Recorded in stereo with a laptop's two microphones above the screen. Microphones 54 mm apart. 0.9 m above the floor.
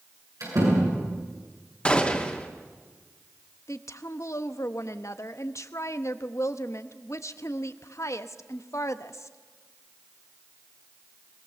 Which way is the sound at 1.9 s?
20° left (ahead or behind).